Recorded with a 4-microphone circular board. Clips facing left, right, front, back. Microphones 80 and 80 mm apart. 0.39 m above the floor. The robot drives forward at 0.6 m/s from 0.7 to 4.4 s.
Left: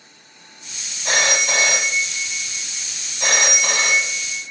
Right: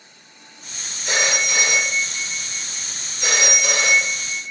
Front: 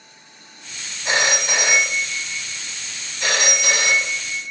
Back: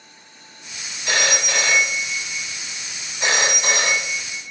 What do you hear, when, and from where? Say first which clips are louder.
1.1 s a phone ringing: left 2 dB, front 1 dB; 65° left, 1.5 m; by 4.5 s 135° left, 1.9 m